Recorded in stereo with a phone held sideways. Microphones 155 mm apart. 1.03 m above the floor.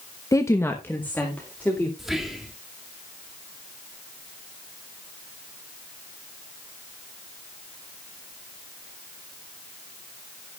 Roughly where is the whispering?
Centre.